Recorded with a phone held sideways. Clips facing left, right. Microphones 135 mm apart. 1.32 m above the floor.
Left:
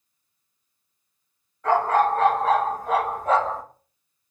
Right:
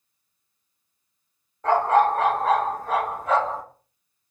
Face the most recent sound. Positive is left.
turn(degrees=45)  # may be behind; listen again after turning